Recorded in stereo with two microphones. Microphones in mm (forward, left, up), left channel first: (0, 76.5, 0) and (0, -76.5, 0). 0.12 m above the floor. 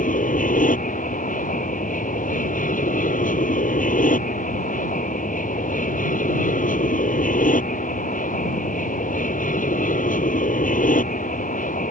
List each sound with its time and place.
0.0 s an aircraft: 65° left (ahead or behind)